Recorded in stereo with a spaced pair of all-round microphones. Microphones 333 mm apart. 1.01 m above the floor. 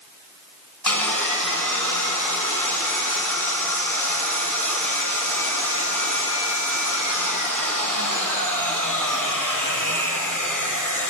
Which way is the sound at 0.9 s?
70° left (ahead or behind).